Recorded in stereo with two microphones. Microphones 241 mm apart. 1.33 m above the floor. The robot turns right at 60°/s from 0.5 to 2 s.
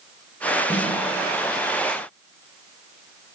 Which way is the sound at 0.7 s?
10° left (ahead or behind).